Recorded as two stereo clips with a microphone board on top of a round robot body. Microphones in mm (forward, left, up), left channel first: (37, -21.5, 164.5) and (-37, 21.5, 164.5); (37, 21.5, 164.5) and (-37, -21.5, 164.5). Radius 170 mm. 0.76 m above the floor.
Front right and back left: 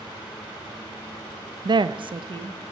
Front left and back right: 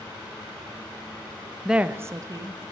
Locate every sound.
1.6 s a woman speaking: 120° left, 0.5 m; by 2.7 s 170° left, 1.2 m